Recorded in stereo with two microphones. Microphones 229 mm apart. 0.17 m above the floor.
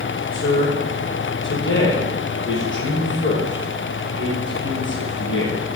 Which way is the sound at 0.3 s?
60° left (ahead or behind).